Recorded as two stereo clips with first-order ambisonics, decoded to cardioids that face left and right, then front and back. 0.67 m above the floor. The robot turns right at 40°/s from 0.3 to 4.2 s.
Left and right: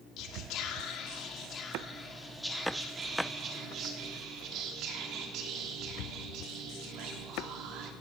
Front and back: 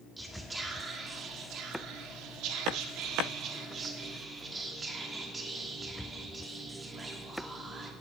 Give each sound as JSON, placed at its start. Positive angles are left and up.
{"t": 0.2, "sound": "whispering", "azimuth_deg": 95, "distance_m": 1.6}